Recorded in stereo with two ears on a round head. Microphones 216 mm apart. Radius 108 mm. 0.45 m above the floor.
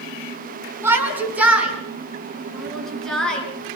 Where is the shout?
10° right (ahead or behind), 5.5 m; by 3.5 s 5° left (ahead or behind), 8 m.